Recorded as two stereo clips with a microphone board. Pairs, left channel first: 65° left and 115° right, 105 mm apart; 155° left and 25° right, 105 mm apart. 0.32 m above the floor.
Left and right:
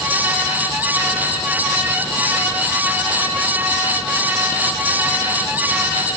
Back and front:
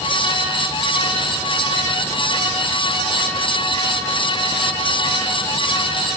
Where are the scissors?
I don't hear scissors.